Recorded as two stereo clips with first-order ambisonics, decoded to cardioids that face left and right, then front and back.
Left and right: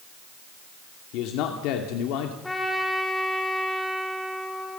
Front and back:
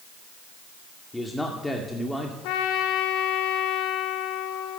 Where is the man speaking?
85° left, 2 m.